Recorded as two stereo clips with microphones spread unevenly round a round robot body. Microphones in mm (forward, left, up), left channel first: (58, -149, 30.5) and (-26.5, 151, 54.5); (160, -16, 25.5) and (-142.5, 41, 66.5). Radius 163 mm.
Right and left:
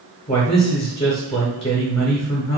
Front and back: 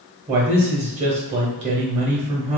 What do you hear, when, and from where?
0.3 s a man speaking: 125° right, 0.9 m